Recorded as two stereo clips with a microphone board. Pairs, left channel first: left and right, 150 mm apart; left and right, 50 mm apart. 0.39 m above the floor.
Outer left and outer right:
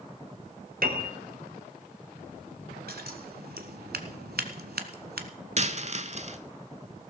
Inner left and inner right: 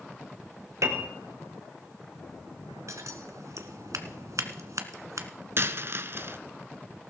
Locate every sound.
0.8 s a piano: 70° right (ahead or behind), 1.5 m
2.9 s scissors: 80° right, 1.2 m
5.6 s a dropped coin: 45° right (ahead or behind), 0.7 m